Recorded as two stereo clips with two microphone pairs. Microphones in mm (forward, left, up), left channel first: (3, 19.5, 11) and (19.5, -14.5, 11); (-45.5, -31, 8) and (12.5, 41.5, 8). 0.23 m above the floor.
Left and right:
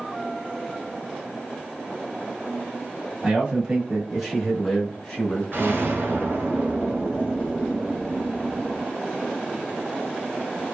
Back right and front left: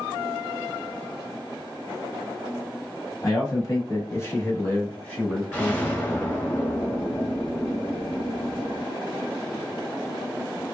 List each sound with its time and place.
3.2 s a man speaking: 110° right, 1.3 m; by 6.5 s 130° left, 1.4 m
5.5 s an explosion: 60° right, 0.9 m